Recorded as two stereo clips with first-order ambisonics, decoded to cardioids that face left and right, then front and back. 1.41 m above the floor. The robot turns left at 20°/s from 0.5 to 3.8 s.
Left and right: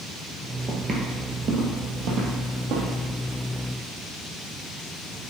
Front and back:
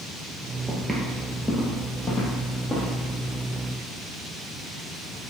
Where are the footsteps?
120° right, 1.5 m; by 2.9 s 105° right, 3 m.